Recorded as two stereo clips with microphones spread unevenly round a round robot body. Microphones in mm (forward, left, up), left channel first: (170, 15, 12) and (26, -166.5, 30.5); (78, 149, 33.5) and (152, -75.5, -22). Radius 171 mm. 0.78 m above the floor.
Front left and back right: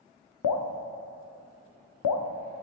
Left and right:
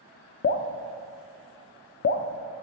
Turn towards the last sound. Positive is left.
turn(degrees=60)